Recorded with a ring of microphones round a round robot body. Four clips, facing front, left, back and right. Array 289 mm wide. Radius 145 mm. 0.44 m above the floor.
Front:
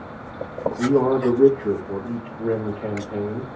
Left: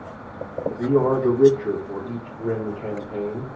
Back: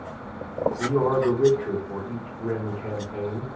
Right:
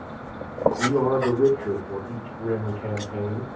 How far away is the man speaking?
About 2.5 m.